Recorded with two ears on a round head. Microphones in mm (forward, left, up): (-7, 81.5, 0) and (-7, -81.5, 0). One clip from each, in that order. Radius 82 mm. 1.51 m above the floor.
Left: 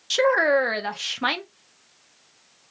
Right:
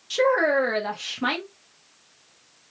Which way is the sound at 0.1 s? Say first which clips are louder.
Left 1 dB; 40° left (ahead or behind).